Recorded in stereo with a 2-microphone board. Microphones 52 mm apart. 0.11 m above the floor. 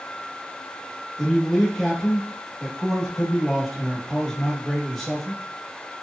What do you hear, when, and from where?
1.2 s a man speaking: 5° left (ahead or behind), 1.1 m